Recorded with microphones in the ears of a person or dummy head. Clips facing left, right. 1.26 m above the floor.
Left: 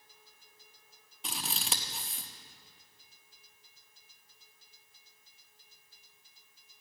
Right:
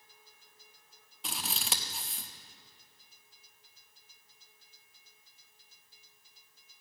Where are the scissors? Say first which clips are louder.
Even; centre (ahead or behind), 0.7 m.